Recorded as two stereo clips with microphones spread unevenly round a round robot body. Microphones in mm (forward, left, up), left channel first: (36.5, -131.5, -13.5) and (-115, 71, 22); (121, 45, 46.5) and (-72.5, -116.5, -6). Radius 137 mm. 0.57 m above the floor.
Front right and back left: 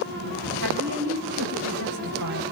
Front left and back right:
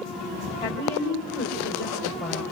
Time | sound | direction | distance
0.6 | a woman speaking | 105° left | 3 m